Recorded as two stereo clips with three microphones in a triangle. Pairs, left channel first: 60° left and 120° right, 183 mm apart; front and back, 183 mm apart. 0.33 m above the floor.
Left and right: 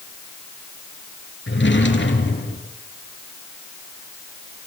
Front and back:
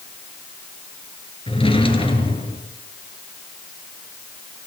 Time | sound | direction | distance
1.5 | a drawer | 60° left | 3.5 m